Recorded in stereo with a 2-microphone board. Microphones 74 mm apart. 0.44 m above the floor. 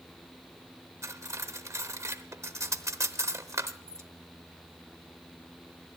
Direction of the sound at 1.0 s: 45° right (ahead or behind).